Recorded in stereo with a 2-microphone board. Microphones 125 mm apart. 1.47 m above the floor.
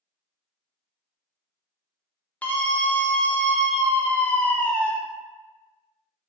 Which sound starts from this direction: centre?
A scream, at 2.4 s.